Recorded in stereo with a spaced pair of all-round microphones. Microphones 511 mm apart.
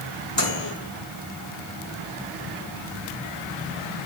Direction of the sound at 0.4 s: 55° left (ahead or behind).